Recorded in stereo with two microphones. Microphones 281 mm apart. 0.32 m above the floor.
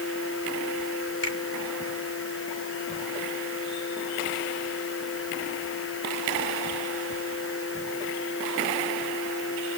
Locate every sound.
1.2 s a finger snap: 40° left (ahead or behind), 3 m